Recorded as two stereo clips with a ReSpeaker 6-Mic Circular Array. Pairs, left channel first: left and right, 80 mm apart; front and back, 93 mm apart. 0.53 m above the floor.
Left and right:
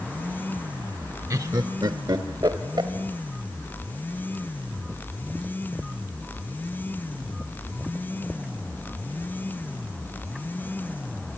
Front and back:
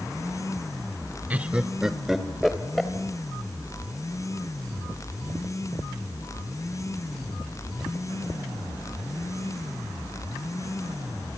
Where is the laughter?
115° right, 1.0 m; by 2.9 s 85° right, 2 m.